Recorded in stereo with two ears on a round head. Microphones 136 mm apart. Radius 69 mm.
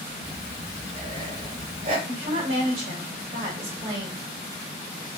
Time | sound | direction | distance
0.2 | breathing | 50° right (ahead or behind) | 3 m
2.1 | a woman speaking | 50° right (ahead or behind) | 3 m